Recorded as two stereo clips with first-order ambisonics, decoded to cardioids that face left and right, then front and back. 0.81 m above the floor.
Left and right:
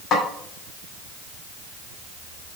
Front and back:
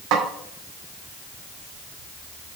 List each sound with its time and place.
0.1 s a snare drum: 145° left, 2 m